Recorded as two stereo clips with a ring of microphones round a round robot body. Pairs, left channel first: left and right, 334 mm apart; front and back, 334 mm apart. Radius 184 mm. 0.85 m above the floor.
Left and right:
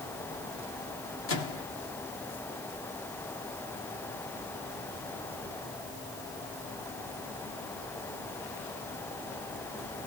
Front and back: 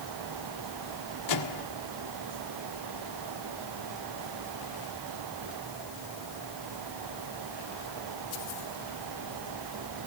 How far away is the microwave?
About 1.5 m.